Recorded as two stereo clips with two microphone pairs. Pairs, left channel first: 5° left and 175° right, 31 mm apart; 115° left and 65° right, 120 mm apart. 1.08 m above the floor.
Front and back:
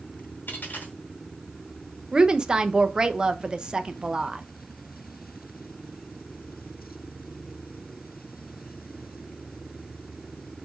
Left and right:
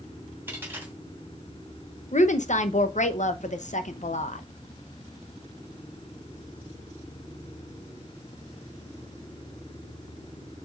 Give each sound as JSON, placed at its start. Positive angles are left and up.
{"t": 0.5, "sound": "a dropped coin", "azimuth_deg": 10, "distance_m": 2.5}
{"t": 2.1, "sound": "a woman speaking", "azimuth_deg": 115, "distance_m": 0.8}